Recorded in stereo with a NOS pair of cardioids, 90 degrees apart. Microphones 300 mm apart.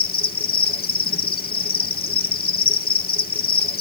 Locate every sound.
0.0 s an insect: 30° left, 0.9 m